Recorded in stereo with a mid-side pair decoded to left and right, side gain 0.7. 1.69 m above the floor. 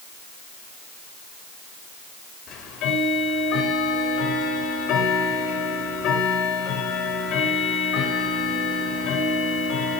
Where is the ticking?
55° left, 4 m.